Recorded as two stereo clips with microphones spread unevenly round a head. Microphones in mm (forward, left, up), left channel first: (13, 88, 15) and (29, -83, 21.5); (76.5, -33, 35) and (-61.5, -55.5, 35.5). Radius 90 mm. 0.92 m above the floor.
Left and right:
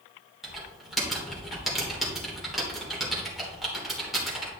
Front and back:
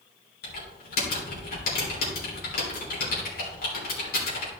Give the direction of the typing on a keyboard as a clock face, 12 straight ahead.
12 o'clock.